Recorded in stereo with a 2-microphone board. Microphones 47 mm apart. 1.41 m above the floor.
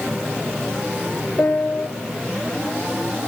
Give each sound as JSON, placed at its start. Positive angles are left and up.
{"t": 1.4, "sound": "a piano", "side_deg": 45, "distance_m": 1.7}